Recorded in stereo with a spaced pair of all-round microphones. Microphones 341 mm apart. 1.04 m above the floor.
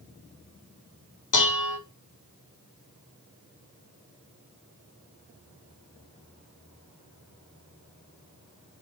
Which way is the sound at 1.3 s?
60° left (ahead or behind).